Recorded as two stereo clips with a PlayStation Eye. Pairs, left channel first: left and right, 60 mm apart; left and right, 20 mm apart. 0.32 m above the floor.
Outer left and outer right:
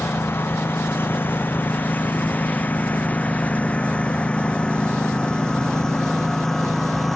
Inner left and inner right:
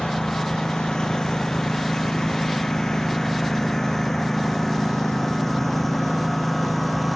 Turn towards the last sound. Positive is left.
turn(degrees=5)  # may be behind; listen again after turning